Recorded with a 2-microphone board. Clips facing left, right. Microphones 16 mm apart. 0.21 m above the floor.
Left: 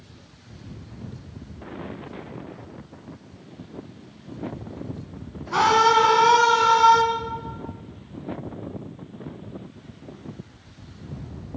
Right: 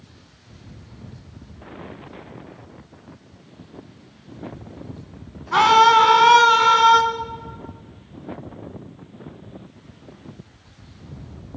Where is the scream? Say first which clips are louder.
Right 4 dB; 40° right (ahead or behind), 1.8 m.